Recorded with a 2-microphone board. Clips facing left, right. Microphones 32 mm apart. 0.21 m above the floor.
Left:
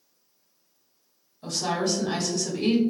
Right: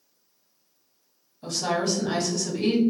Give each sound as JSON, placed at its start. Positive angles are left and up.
{"t": 1.4, "sound": "a woman speaking", "side_deg": -5, "distance_m": 1.0}